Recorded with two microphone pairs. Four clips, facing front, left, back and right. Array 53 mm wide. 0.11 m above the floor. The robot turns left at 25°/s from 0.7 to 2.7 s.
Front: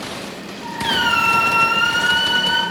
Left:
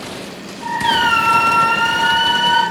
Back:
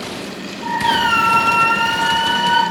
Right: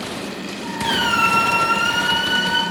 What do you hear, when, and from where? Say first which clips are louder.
0.8 s a squeak: left 4 dB, back 2 dB; 75° left, 0.5 m; by 2.6 s 30° left, 0.5 m